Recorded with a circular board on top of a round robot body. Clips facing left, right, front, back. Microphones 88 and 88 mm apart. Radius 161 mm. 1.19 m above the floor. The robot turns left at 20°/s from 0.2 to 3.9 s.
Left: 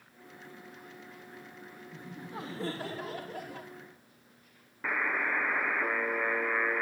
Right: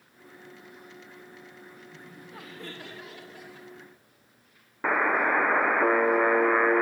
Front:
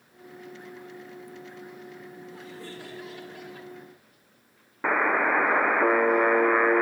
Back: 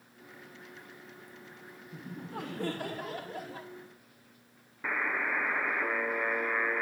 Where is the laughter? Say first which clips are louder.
Left 6 dB, back 1 dB; 160° left, 1.0 m; by 3.7 s 125° left, 1.0 m.